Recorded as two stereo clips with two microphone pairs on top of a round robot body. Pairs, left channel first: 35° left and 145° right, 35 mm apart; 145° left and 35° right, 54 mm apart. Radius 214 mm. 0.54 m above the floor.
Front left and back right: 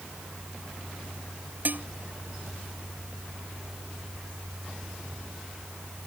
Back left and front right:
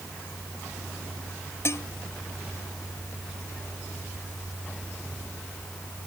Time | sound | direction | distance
1.6 | dishes clattering | straight behind | ?